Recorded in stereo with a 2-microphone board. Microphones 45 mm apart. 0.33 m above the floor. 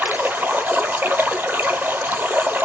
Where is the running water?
45° right (ahead or behind), 0.7 m.